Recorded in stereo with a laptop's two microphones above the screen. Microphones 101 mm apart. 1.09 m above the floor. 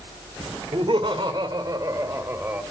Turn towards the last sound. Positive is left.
turn(degrees=-20)  # may be behind; listen again after turning